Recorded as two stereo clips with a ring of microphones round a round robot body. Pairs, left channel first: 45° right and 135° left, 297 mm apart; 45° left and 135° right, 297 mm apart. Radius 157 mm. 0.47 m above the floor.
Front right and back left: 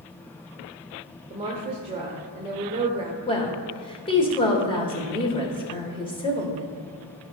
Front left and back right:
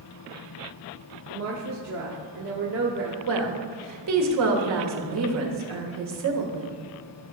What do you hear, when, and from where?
1.3 s a woman speaking: 155° right, 1.2 m
3.3 s a woman speaking: 115° right, 1.7 m